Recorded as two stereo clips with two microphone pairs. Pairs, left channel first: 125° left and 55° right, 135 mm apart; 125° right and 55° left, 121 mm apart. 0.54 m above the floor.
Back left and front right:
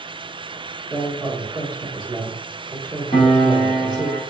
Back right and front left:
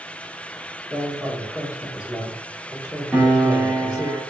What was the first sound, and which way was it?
A woman speaking, 85° right.